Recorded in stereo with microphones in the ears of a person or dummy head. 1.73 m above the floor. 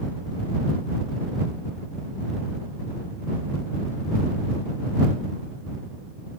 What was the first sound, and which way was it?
Only background noise.